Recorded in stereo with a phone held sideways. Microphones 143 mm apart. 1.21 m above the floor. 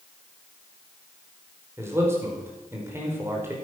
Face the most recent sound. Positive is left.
turn(degrees=-15)  # may be behind; listen again after turning